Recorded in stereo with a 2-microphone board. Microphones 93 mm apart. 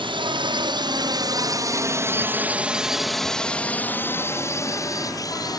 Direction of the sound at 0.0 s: 60° right (ahead or behind).